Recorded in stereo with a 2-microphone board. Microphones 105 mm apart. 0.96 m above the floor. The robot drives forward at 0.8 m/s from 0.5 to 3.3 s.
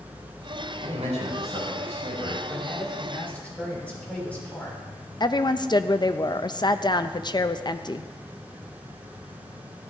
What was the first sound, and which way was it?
A man speaking, 85° right.